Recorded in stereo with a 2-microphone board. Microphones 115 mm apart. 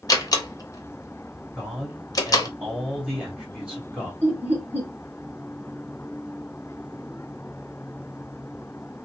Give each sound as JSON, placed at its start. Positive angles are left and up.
{"t": 0.1, "sound": "a door slam", "side_deg": 30, "distance_m": 0.6}
{"t": 1.6, "sound": "a man speaking", "side_deg": -10, "distance_m": 1.9}
{"t": 4.2, "sound": "laughter", "side_deg": -20, "distance_m": 1.9}